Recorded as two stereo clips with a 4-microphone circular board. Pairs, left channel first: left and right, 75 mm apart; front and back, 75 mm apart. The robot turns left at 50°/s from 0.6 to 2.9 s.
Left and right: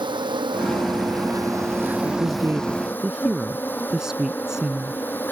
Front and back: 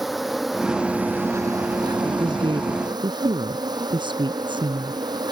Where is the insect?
90° right; by 5.3 s 155° left.